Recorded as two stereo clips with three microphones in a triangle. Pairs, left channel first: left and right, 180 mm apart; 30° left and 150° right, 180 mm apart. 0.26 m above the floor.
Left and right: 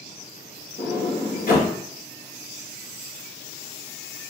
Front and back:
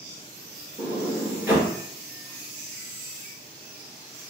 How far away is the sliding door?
About 2.5 m.